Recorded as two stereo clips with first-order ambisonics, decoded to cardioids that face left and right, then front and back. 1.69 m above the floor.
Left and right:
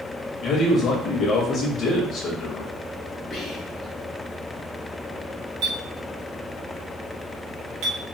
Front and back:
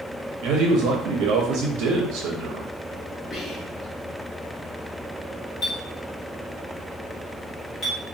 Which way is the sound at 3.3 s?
40° left.